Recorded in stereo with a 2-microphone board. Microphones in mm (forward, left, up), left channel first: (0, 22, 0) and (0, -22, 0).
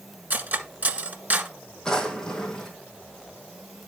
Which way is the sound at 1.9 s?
15° left (ahead or behind).